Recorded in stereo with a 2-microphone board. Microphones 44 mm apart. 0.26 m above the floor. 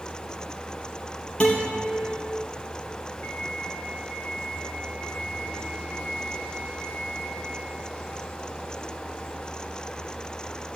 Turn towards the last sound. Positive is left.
turn(degrees=45)  # may be behind; listen again after turning